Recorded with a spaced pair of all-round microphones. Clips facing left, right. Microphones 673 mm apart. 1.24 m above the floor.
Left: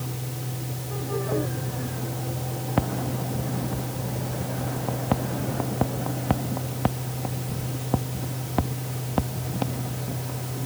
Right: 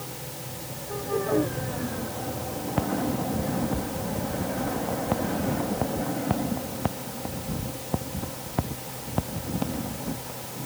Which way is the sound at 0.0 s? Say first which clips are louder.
Left 4 dB; 60° left (ahead or behind).